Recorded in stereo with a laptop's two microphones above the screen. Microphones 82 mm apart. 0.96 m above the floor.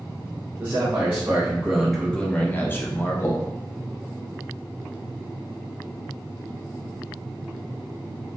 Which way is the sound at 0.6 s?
30° right (ahead or behind).